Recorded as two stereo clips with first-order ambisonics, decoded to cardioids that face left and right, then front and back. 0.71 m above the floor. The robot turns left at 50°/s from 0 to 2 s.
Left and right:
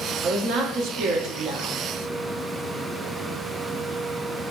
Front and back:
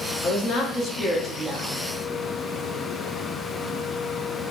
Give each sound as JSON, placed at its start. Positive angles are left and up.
{"t": 0.2, "sound": "a woman speaking", "azimuth_deg": -40, "distance_m": 1.1}